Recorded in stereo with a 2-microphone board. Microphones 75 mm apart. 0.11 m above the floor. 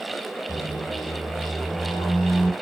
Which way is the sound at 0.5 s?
70° left (ahead or behind).